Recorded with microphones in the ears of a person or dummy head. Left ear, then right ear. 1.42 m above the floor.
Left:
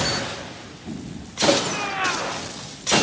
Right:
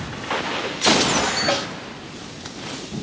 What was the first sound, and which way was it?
A snare drum, 35° left (ahead or behind).